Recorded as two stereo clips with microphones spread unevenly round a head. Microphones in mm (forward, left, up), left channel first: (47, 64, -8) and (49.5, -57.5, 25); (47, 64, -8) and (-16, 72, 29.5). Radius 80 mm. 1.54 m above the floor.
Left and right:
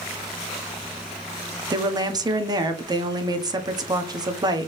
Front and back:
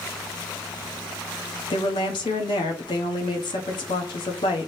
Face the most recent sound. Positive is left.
turn(degrees=-35)